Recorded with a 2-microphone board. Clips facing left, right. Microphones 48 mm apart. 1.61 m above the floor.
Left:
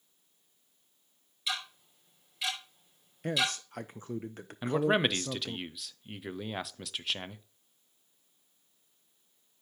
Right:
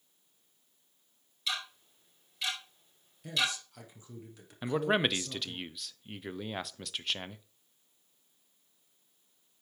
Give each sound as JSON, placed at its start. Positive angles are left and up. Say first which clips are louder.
{"t": 1.5, "sound": "ticking", "louder": "even", "side_deg": 5, "distance_m": 5.0}
{"t": 3.2, "sound": "a man speaking", "louder": "left 2 dB", "side_deg": 55, "distance_m": 0.6}
{"t": 4.6, "sound": "a man speaking", "louder": "left 2 dB", "side_deg": 0, "distance_m": 0.6}